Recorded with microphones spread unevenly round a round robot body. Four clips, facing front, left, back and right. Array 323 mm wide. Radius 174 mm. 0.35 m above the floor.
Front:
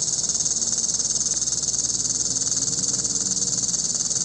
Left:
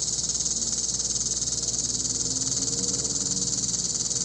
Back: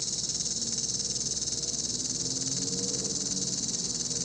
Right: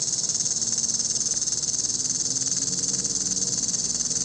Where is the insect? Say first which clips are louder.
Even, front 4 dB; 5° right, 0.9 m.